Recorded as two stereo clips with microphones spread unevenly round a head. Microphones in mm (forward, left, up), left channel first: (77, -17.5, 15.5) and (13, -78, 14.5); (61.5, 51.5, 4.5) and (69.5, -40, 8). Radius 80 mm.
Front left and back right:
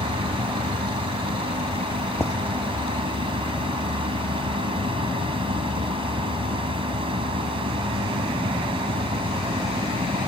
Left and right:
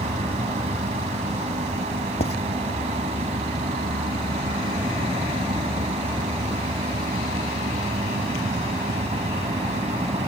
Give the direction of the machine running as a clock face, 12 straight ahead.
4 o'clock.